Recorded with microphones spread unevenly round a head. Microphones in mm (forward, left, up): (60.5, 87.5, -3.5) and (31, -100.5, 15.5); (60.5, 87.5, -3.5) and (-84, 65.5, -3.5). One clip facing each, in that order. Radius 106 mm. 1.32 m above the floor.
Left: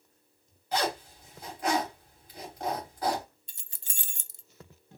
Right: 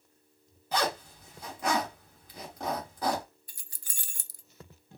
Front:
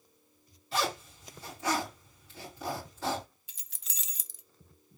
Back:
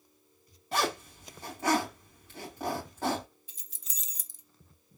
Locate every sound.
0.7 s a zipper: 105° right, 3 m
3.5 s keys jangling: 15° left, 0.5 m